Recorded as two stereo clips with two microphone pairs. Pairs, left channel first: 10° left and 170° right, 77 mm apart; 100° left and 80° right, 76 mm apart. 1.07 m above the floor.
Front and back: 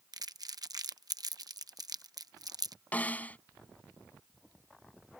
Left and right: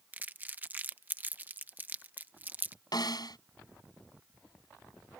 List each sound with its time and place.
0.1 s crumpling: 145° right
2.9 s a snare drum: 80° left